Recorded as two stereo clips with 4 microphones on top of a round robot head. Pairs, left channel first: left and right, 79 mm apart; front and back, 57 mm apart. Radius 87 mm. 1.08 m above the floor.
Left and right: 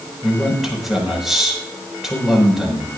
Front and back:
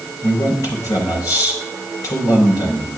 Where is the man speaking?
Straight ahead, 5.5 m.